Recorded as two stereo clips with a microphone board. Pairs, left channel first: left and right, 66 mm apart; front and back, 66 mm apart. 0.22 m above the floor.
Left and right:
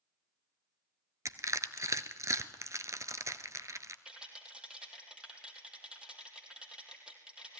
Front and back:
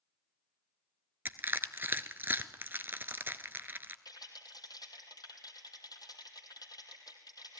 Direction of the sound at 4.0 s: 15° right.